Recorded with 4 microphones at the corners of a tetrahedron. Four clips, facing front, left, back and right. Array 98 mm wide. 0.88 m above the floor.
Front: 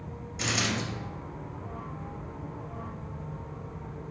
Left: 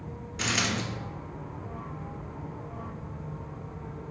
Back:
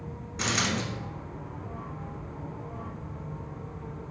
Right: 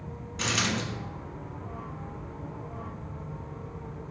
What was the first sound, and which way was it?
A dropped coin, 175° right.